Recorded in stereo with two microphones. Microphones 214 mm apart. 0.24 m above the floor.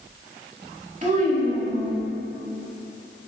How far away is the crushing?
No crushing in this recording.